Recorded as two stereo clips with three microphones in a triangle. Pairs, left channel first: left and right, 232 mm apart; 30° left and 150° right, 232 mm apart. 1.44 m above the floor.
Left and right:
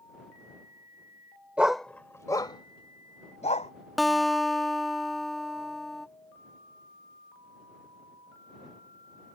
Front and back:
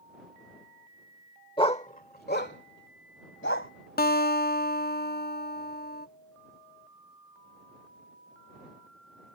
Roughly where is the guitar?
Ahead.